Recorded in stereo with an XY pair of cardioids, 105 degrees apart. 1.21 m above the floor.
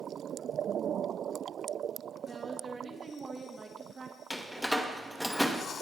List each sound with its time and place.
2.3 s a woman speaking: 25° right, 2 m
4.3 s a door slam: 5° left, 1.1 m